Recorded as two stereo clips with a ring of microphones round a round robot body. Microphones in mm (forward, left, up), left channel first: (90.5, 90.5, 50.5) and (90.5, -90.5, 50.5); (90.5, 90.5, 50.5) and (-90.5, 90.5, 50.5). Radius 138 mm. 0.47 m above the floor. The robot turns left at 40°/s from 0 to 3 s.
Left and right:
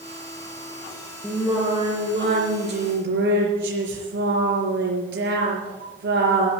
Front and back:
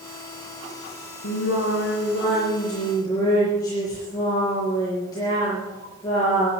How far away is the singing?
About 4.5 m.